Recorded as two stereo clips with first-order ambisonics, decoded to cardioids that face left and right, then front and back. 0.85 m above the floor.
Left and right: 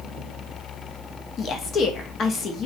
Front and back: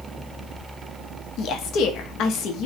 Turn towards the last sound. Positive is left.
turn(degrees=35)